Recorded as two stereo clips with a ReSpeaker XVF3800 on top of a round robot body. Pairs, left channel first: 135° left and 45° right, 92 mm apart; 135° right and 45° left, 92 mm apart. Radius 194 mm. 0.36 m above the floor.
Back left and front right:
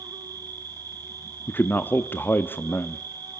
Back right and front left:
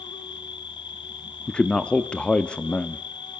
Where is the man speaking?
165° left, 1.3 m.